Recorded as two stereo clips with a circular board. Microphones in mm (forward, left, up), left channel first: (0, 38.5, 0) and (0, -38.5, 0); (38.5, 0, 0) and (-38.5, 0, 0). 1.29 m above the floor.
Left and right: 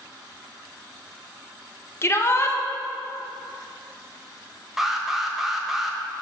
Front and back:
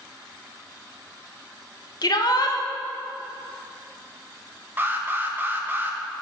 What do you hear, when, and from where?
2.0 s a shout: 35° left, 0.9 m
4.8 s an alarm: 170° right, 0.7 m